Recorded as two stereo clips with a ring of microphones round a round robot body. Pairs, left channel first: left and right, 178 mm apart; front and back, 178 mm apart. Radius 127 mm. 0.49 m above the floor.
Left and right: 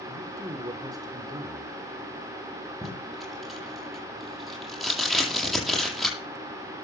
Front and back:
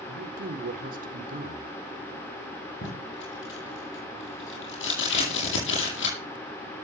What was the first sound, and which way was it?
A man speaking, 155° right.